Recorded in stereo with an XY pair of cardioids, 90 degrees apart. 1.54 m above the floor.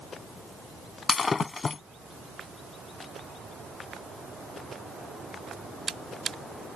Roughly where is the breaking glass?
Ahead left.